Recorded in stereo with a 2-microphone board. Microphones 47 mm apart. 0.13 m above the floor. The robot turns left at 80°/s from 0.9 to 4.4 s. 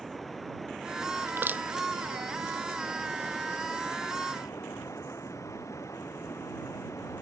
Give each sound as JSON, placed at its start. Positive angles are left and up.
{"t": 0.0, "sound": "running water", "azimuth_deg": 5}
{"t": 1.3, "sound": "crushing", "side_deg": -55}